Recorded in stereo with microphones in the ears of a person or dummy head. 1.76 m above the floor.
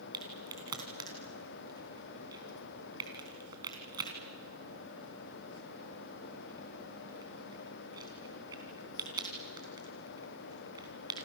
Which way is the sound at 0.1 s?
20° right (ahead or behind).